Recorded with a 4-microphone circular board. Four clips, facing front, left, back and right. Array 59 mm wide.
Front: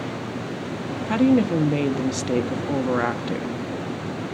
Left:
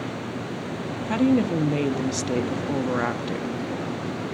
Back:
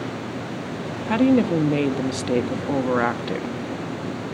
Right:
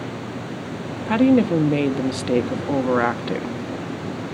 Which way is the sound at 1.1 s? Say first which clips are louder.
Right 5 dB, back 1 dB; 120° right.